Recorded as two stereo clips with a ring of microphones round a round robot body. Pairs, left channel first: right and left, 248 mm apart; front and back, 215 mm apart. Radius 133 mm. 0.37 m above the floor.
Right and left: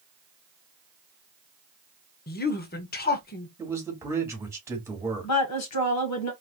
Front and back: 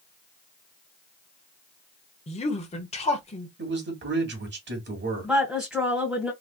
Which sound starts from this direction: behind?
A man speaking, at 3.6 s.